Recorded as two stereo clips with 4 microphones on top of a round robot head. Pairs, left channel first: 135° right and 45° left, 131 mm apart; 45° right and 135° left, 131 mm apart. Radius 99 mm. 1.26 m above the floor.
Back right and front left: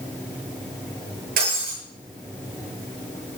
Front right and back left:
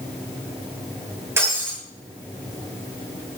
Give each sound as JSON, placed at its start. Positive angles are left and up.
{"t": 1.4, "sound": "breaking glass", "azimuth_deg": 60, "distance_m": 9.5}